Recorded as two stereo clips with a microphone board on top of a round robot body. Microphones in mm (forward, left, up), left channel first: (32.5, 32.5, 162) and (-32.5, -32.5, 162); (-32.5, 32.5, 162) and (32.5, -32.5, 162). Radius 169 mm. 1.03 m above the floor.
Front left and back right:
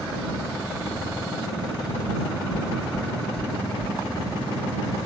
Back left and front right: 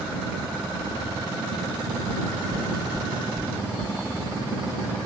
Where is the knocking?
50° left.